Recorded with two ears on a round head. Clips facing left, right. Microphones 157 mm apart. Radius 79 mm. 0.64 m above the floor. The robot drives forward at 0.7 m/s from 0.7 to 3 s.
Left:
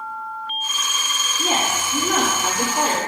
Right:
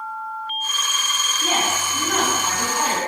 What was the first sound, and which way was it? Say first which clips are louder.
A woman speaking: left 1 dB; 65° left (ahead or behind).